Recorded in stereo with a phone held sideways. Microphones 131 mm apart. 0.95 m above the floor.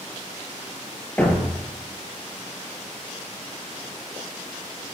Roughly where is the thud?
Centre.